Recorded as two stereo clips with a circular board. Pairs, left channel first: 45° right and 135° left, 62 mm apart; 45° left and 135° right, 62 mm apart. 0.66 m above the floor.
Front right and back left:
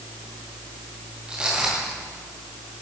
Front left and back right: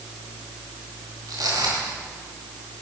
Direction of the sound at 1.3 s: 150° right.